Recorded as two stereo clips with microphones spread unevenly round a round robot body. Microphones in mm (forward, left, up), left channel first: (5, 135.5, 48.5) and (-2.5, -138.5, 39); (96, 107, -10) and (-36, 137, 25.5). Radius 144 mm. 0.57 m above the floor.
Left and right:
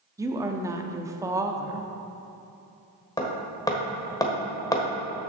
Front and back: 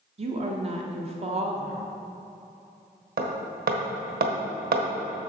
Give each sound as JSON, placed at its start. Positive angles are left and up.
{"t": 0.2, "sound": "a woman speaking", "azimuth_deg": -160, "distance_m": 0.9}
{"t": 3.2, "sound": "hammering", "azimuth_deg": 165, "distance_m": 1.3}